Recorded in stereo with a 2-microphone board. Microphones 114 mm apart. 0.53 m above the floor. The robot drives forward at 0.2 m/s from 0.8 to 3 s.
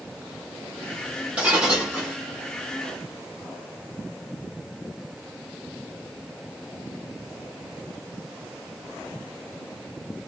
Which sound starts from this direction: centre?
Breaking glass, at 1.4 s.